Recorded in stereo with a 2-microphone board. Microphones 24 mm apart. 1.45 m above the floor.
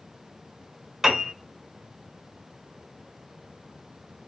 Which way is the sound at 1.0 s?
15° right (ahead or behind).